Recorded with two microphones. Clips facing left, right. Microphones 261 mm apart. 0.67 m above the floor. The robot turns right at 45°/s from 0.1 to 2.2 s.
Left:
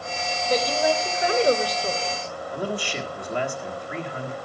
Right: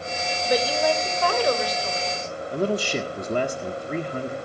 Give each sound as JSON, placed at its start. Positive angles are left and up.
{"t": 0.5, "sound": "a woman speaking", "azimuth_deg": -15, "distance_m": 3.0}
{"t": 2.5, "sound": "a man speaking", "side_deg": -45, "distance_m": 1.6}